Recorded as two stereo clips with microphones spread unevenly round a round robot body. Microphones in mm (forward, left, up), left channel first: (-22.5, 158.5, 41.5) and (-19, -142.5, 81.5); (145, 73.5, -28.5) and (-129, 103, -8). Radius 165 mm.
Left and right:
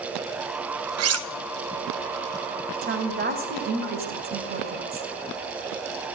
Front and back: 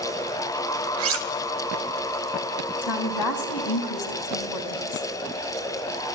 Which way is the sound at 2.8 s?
25° right.